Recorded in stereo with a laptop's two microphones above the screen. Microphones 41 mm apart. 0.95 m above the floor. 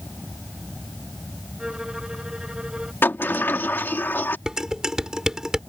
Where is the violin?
15° right (ahead or behind).